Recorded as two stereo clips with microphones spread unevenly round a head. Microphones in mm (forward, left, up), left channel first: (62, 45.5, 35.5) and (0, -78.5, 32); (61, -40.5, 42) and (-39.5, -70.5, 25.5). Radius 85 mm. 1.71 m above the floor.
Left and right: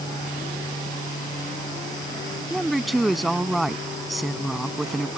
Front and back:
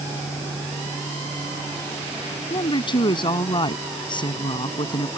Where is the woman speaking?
25° right.